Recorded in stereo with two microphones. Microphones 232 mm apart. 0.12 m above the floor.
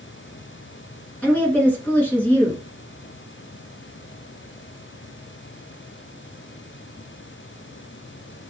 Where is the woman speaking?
5° left (ahead or behind), 1.1 m.